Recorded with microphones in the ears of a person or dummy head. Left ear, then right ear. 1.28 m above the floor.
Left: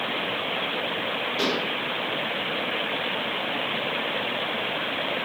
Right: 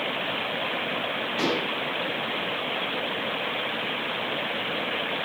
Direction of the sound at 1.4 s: 35° right (ahead or behind).